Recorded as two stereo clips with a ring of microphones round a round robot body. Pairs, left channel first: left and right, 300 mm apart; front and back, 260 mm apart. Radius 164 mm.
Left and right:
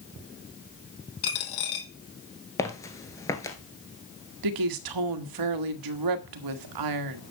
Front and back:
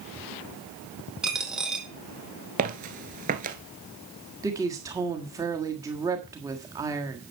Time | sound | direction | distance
1.2 | a dropped coin | 90° left | 1.9 m
2.6 | footsteps | 160° left | 1.0 m
4.4 | a woman speaking | 100° right | 1.5 m